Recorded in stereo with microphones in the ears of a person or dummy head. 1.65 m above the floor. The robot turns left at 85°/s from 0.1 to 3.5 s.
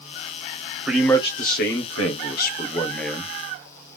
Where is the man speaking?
165° right, 1.1 m; by 3.3 s 15° right, 1.1 m.